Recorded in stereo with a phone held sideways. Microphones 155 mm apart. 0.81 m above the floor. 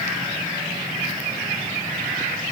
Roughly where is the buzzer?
I don't hear a buzzer.